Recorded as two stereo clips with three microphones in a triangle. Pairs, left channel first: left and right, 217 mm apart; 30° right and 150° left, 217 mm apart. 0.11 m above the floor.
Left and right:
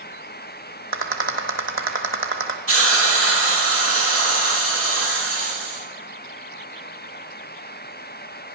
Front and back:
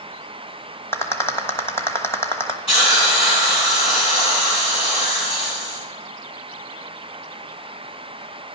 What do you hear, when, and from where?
0.9 s a rattle: 110° right, 1.2 m
2.7 s a hiss: 95° right, 5 m